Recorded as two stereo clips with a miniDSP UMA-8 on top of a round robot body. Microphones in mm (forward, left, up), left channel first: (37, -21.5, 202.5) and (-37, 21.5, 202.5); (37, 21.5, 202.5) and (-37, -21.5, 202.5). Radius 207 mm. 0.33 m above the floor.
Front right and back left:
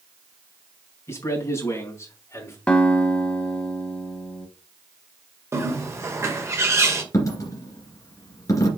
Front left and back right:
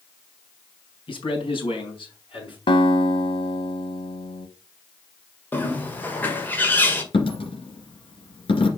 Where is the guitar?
50° left, 0.8 m.